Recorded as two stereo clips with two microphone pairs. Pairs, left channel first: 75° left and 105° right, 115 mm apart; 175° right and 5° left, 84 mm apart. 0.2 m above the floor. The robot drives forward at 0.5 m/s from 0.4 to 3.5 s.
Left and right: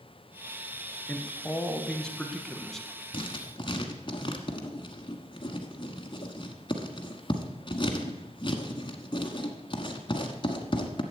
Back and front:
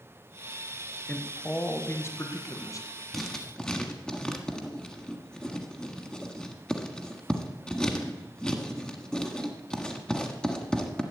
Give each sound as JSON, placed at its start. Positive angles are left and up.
{"t": 1.1, "sound": "a man speaking", "azimuth_deg": 135, "distance_m": 1.3}
{"t": 3.1, "sound": "writing", "azimuth_deg": 100, "distance_m": 1.4}